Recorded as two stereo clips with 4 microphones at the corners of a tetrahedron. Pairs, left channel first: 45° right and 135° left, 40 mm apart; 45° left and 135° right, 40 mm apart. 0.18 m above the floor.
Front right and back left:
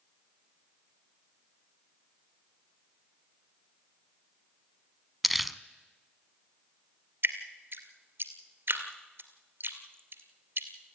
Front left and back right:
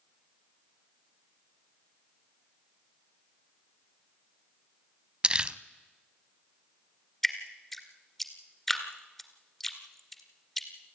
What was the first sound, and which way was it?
Crumpling, 140° right.